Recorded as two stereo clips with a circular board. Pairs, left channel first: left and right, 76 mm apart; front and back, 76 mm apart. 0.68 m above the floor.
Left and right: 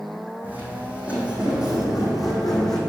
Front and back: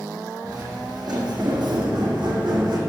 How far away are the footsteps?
About 2.5 m.